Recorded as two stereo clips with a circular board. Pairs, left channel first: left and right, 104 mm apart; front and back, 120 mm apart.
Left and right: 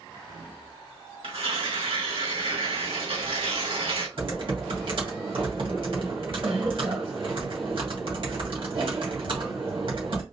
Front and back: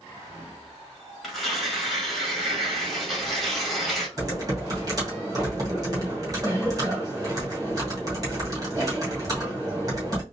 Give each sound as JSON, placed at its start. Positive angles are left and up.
{"t": 1.2, "sound": "tearing paper", "azimuth_deg": -90, "distance_m": 2.0}
{"t": 4.2, "sound": "typing on a keyboard", "azimuth_deg": -120, "distance_m": 2.0}